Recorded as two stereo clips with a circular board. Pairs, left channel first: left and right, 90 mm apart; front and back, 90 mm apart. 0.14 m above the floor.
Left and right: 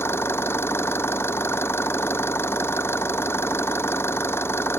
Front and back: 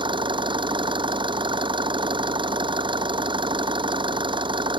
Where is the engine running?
155° left.